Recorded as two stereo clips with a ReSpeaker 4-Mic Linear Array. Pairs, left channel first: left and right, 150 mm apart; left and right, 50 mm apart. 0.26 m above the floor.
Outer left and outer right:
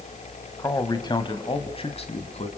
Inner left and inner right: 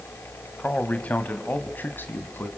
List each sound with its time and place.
0.6 s a man speaking: 20° left (ahead or behind), 1.6 m; by 2.5 s 45° left (ahead or behind), 2 m